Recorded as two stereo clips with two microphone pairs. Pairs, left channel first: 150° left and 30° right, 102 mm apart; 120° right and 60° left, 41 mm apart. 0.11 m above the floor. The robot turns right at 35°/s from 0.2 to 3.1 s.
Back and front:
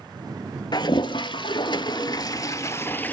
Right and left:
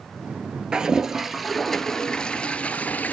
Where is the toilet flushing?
125° left, 0.5 m; by 3.1 s 150° right, 0.5 m.